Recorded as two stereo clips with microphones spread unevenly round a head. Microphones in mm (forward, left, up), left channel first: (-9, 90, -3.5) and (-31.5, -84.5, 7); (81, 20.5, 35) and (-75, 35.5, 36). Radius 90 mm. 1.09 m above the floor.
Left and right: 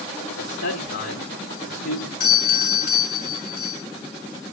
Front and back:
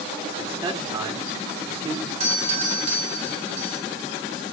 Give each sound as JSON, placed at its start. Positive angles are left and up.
{"t": 0.3, "sound": "a man speaking", "azimuth_deg": 105, "distance_m": 3.0}
{"t": 2.2, "sound": "a doorbell", "azimuth_deg": 120, "distance_m": 3.0}